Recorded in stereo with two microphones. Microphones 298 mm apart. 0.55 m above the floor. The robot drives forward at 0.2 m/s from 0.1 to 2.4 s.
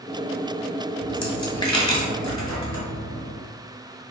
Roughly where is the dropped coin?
Left.